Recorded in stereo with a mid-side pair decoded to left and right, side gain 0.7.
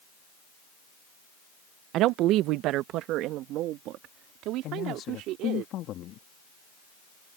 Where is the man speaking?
50° left.